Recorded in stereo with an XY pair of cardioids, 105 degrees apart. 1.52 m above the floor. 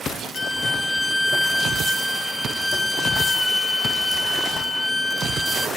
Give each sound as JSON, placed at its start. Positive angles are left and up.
{"t": 0.3, "sound": "a violin", "azimuth_deg": 15, "distance_m": 0.9}